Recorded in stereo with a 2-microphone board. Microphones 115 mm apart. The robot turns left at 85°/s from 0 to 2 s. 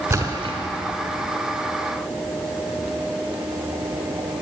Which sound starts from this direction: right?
A splash, at 0.1 s.